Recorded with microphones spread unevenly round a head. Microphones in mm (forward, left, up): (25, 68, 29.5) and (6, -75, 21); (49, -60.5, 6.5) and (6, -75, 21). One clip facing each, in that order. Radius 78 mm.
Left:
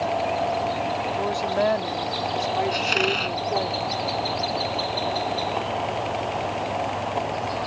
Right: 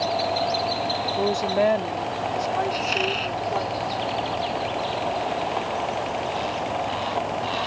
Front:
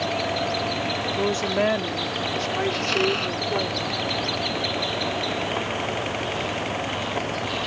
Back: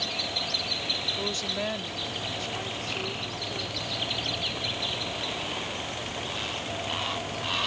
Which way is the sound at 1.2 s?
30° right.